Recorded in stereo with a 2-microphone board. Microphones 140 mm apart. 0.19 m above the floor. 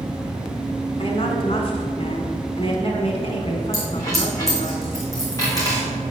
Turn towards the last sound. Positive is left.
turn(degrees=25)  # may be behind; listen again after turning